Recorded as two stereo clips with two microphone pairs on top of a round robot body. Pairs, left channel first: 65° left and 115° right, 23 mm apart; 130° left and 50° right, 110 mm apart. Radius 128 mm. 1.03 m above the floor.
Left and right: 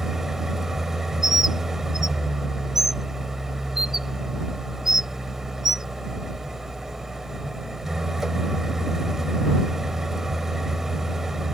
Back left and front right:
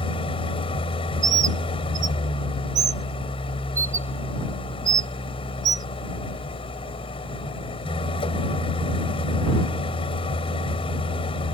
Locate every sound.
0.0 s an engine running: 170° left
1.2 s a bird: 35° right